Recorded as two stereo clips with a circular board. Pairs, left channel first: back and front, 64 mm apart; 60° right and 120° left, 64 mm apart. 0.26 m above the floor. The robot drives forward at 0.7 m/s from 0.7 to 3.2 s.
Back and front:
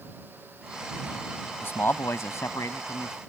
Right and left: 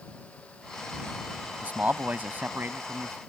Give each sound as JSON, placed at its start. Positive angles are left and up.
{"t": 1.6, "sound": "a man speaking", "azimuth_deg": 165}